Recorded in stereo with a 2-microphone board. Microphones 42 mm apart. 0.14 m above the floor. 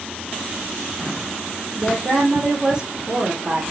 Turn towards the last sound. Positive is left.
turn(degrees=-30)  # may be behind; listen again after turning